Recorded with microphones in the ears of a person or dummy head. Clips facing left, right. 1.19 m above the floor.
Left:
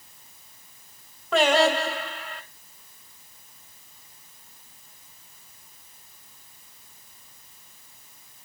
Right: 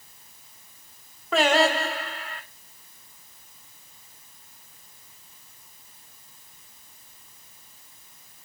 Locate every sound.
1.3 s singing: centre (ahead or behind), 1.8 m